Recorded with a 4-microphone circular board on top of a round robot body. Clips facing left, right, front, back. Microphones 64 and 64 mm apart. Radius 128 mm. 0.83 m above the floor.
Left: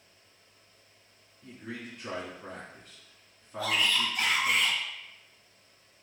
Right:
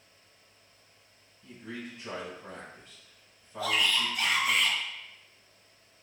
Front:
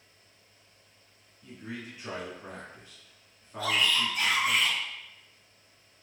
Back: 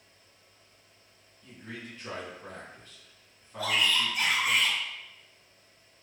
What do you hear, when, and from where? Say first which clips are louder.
1.4 s a man speaking: even, front 2 dB; 80° left, 2.0 m
3.6 s a shout: even, even; 95° left, 1.7 m